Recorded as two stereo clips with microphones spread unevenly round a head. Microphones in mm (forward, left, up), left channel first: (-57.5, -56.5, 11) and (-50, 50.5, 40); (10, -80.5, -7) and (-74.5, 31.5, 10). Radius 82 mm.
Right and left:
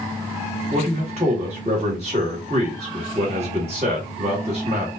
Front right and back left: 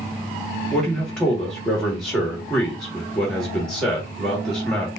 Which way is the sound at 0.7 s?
35° left.